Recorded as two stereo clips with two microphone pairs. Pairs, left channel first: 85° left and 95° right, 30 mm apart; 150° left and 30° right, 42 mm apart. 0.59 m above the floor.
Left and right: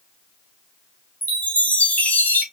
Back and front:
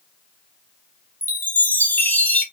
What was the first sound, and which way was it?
A chime, 100° left.